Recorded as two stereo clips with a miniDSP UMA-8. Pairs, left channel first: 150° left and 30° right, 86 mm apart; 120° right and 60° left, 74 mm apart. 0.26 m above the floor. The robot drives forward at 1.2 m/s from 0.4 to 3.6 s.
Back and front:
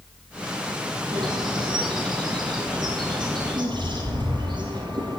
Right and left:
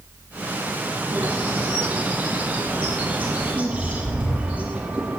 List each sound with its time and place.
1.1 s a bird: 5° right, 9 m; by 5.2 s 10° right, 6 m